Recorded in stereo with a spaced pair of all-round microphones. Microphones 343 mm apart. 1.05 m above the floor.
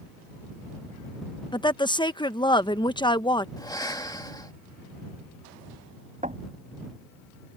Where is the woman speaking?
15° left (ahead or behind).